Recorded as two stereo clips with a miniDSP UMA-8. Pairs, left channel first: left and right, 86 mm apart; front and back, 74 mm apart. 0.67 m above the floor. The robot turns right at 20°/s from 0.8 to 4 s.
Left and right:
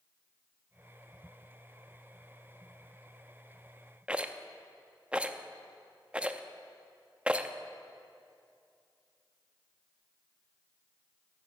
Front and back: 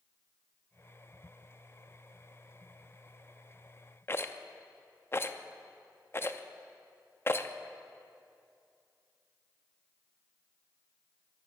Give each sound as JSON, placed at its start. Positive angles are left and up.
{"t": 4.1, "sound": "a rattle", "azimuth_deg": -20, "distance_m": 0.5}